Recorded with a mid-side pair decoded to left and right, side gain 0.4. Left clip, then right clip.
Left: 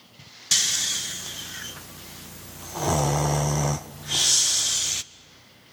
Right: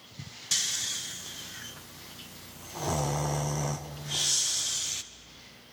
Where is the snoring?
50° left, 0.7 m.